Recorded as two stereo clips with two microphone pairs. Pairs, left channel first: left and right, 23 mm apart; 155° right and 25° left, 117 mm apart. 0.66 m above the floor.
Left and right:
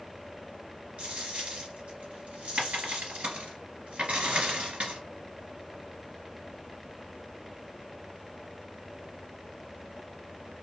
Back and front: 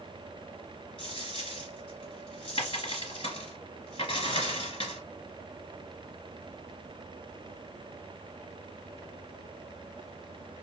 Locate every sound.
1.0 s a dropped coin: 115° right, 1.8 m